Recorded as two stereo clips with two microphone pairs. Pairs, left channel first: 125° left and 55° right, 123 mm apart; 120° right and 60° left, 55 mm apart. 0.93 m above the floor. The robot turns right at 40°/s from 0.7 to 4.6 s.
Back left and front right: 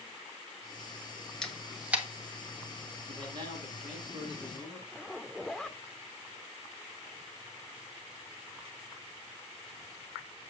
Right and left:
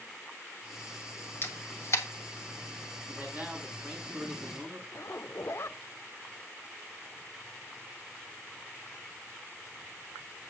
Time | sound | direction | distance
1.4 | a camera shutter | 155° right | 1.4 m
3.1 | a man speaking | 15° right | 7 m
4.9 | a zipper | 145° right | 0.6 m